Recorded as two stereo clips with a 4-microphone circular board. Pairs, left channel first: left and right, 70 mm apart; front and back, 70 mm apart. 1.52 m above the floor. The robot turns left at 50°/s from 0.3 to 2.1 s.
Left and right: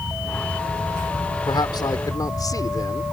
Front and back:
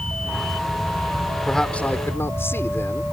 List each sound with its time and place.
1.5 s a man speaking: 90° left; by 3.0 s 55° left